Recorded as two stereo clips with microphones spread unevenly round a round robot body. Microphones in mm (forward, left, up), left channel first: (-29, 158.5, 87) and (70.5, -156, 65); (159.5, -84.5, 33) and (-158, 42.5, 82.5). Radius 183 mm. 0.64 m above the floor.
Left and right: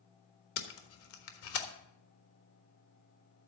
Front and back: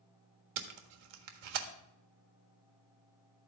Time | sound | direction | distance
0.6 | tape being pulled | 155° left | 1.4 m